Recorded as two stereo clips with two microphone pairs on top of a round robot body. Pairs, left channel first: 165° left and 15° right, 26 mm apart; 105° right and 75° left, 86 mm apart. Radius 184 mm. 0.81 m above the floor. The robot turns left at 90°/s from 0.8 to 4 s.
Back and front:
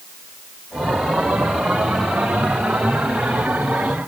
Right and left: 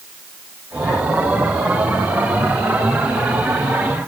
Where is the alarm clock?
I don't hear an alarm clock.